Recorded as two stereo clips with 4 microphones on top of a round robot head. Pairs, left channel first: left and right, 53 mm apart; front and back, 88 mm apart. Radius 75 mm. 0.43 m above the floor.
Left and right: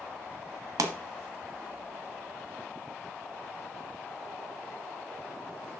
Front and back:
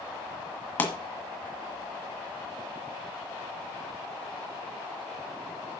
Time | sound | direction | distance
0.8 | a pop | 70° right | 1.8 m